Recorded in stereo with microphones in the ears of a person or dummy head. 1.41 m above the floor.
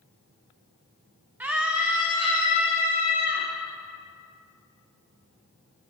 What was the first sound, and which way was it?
A scream, 15° right (ahead or behind).